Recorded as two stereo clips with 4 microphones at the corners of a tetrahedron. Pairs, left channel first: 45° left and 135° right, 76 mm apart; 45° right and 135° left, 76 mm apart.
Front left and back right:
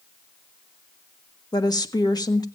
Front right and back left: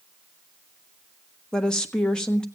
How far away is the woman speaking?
About 1.2 m.